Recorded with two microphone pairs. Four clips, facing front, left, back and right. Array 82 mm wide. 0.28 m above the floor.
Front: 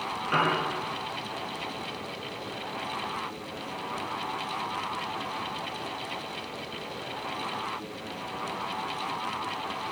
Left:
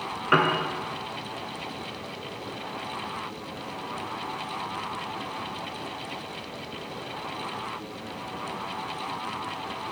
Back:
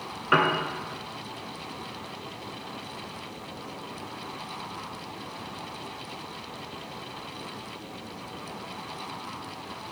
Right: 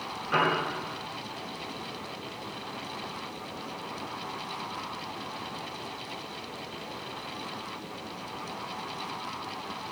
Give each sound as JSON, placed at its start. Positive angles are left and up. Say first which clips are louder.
{"t": 0.3, "sound": "a piano", "louder": "left 4 dB, back 3 dB", "azimuth_deg": 140, "distance_m": 1.2}